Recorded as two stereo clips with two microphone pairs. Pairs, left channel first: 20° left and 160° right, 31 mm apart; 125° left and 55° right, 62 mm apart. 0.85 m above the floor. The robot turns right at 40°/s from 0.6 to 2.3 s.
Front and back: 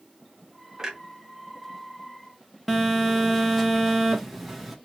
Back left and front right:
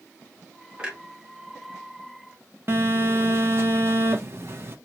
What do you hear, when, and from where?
0.8 s a clunk: 115° right, 0.8 m; by 1.0 s 105° right, 0.8 m
2.7 s a phone buzzing: 75° right, 0.6 m